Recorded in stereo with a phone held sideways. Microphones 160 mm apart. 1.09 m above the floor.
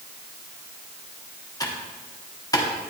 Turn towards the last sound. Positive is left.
turn(degrees=20)  # may be behind; listen again after turning